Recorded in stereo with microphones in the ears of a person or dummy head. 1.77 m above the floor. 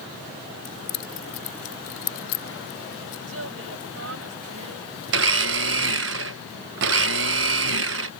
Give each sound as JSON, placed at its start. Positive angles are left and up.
{"t": 0.7, "sound": "keys jangling", "side_deg": 75}
{"t": 3.3, "sound": "a woman speaking", "side_deg": -75}
{"t": 5.1, "sound": "a blender", "side_deg": -60}